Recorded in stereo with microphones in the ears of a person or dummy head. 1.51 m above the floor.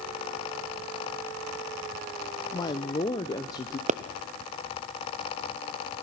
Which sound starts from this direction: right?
A pop, at 3.9 s.